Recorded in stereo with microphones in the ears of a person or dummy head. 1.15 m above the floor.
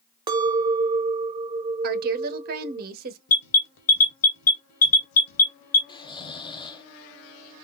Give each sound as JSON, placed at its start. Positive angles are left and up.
{"t": 0.3, "sound": "a clink", "side_deg": -25, "distance_m": 0.6}
{"t": 1.8, "sound": "a woman speaking", "side_deg": -50, "distance_m": 0.8}
{"t": 3.3, "sound": "an alarm", "side_deg": 70, "distance_m": 1.3}
{"t": 5.9, "sound": "snoring", "side_deg": 25, "distance_m": 0.5}